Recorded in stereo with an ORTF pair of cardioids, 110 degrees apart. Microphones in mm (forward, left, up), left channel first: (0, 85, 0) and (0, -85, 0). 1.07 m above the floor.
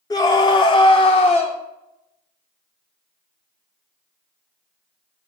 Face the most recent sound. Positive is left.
turn(degrees=45)